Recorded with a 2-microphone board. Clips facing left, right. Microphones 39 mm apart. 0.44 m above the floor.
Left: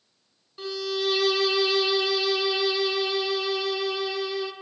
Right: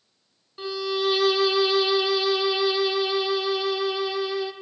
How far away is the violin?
About 1.2 m.